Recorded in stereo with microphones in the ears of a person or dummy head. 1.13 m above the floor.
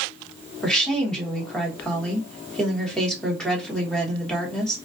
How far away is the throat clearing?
I don't hear throat clearing.